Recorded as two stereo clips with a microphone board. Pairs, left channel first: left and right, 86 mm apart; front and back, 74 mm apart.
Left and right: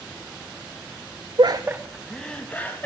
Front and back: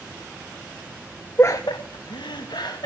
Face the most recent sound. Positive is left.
turn(degrees=20)